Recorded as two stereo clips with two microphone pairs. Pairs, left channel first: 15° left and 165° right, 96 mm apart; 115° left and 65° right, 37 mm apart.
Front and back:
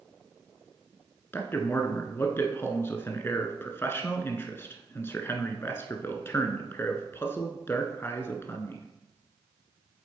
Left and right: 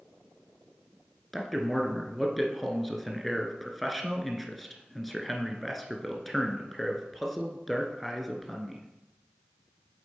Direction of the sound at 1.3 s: 30° left.